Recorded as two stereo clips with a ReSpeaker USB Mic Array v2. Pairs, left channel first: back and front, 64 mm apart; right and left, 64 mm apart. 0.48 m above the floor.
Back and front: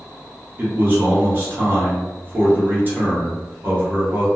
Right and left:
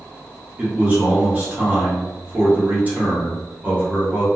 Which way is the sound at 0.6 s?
40° left.